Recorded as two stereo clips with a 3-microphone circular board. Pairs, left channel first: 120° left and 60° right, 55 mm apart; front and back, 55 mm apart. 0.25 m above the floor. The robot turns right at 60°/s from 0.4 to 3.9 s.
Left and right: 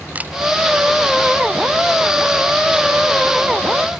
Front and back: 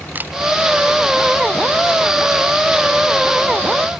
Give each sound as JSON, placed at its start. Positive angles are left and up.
{"t": 0.1, "sound": "a camera shutter", "azimuth_deg": -125}